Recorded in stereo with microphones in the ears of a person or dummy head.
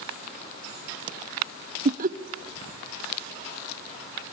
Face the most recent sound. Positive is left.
turn(degrees=-35)  # may be behind; listen again after turning